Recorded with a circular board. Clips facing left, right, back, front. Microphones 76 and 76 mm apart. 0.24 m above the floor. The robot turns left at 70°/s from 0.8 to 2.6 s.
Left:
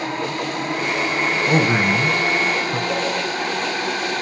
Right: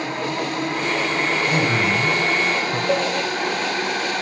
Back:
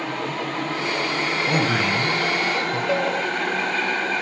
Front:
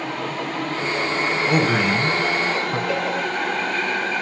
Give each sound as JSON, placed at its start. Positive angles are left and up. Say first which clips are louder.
{"t": 1.5, "sound": "a man speaking", "louder": "left 5 dB, front 3 dB", "azimuth_deg": 95, "distance_m": 1.4}
{"t": 2.9, "sound": "a cowbell", "louder": "right 6 dB, back 4 dB", "azimuth_deg": -125, "distance_m": 1.9}